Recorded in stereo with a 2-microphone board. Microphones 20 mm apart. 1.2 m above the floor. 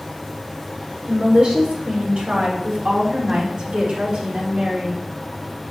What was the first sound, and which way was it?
A woman speaking, 80° right.